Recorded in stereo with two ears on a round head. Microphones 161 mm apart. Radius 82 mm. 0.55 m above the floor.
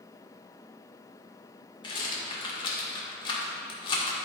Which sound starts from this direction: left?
A rattle, at 1.8 s.